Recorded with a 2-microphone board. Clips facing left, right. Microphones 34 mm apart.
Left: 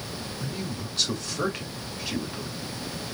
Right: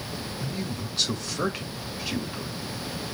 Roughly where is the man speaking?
Centre.